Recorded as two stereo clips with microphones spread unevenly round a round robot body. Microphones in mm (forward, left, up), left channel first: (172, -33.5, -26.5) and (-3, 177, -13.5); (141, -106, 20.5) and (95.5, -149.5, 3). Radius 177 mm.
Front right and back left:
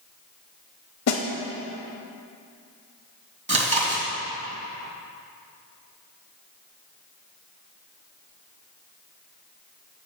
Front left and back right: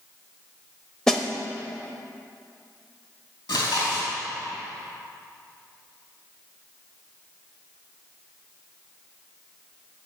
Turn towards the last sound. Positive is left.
turn(degrees=65)